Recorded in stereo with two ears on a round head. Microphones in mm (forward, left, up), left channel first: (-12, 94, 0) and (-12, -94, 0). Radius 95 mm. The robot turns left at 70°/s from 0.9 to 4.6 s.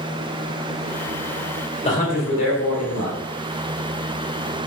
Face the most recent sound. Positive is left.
turn(degrees=-45)